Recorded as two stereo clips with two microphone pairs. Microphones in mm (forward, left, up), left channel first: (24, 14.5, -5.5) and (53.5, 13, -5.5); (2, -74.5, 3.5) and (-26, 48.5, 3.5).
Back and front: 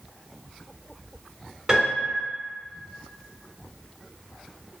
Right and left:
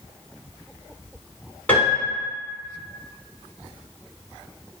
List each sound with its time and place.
1.7 s a piano: 25° right, 1.4 m